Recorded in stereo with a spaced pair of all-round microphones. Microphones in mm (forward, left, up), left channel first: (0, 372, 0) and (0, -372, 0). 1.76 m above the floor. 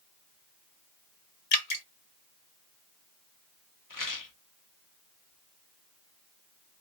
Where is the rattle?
30° left (ahead or behind), 0.6 m.